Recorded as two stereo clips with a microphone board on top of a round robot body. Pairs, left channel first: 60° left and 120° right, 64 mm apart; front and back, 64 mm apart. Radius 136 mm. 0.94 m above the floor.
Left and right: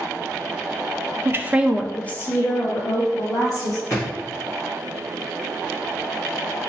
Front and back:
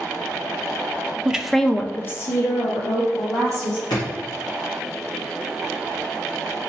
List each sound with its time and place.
1.2 s a woman speaking: 110° right, 0.5 m; by 3.8 s 40° left, 1.3 m
3.9 s a drawer: straight ahead, 0.9 m